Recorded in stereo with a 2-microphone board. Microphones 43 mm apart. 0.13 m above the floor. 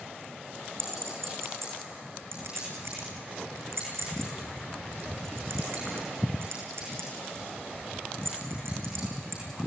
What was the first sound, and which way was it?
A clink, 80° right.